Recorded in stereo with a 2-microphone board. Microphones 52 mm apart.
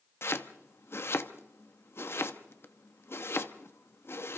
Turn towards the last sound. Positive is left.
turn(degrees=50)  # may be behind; listen again after turning